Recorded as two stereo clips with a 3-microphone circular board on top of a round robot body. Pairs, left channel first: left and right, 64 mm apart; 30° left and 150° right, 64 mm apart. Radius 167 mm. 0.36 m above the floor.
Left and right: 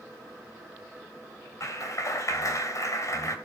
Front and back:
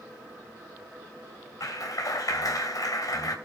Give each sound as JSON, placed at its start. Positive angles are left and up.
{"t": 1.6, "sound": "a clap", "azimuth_deg": 55, "distance_m": 3.5}